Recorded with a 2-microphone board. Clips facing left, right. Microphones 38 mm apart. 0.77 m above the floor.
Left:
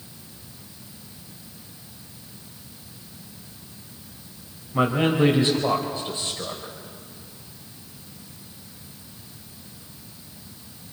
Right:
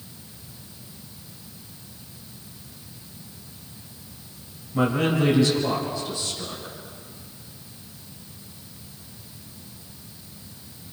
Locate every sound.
4.7 s a man speaking: 25° left (ahead or behind), 3.5 m; by 6.7 s 45° left (ahead or behind), 3 m